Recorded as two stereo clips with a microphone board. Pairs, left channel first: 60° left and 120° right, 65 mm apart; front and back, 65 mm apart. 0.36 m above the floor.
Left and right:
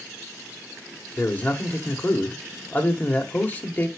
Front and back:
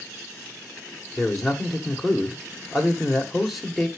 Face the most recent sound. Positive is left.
turn(degrees=90)